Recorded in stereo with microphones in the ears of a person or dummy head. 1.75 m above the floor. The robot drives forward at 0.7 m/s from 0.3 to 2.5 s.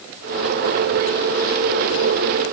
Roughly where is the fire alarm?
No fire alarm in this recording.